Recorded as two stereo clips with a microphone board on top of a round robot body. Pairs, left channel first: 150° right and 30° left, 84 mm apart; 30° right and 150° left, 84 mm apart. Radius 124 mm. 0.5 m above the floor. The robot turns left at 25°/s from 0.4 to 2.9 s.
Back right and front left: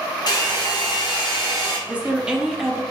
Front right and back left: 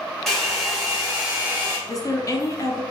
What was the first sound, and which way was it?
A hair dryer, 115° right.